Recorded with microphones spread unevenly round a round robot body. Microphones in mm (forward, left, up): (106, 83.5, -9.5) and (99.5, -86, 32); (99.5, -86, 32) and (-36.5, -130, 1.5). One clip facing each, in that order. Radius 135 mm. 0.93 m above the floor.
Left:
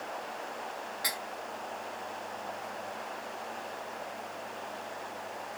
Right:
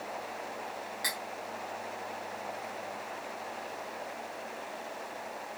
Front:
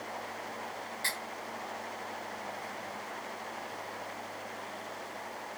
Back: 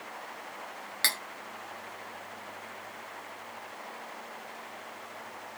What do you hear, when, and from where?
1.0 s cutlery clinking: 160° right, 0.7 m